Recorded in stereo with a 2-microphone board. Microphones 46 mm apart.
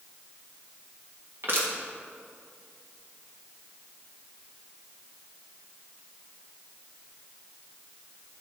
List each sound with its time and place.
1.4 s crushing: 55° right (ahead or behind), 1.7 m